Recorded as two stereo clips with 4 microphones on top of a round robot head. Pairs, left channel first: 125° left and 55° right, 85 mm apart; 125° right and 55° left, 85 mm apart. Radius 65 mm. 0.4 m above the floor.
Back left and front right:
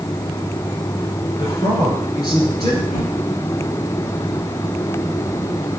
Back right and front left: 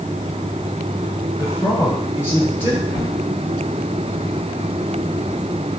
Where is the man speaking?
165° left, 5.5 m.